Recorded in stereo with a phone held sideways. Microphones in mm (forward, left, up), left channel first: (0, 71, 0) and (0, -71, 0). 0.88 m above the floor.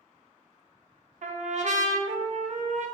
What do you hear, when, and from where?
1.2 s a trumpet: 60° right (ahead or behind), 0.7 m